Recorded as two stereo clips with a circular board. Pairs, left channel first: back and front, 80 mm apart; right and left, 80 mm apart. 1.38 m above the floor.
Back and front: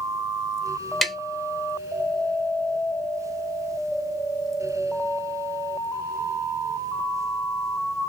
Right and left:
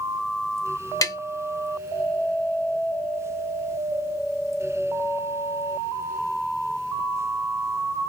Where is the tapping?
95° right, 0.7 m.